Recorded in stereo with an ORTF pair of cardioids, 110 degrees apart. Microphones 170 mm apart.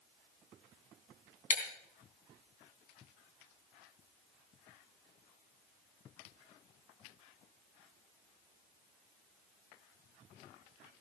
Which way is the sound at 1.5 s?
50° left.